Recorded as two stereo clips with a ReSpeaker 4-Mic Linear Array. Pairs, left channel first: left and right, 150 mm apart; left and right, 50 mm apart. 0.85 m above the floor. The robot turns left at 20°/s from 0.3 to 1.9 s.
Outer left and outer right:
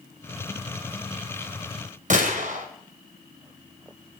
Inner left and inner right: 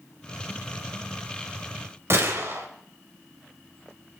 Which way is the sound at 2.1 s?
55° right (ahead or behind).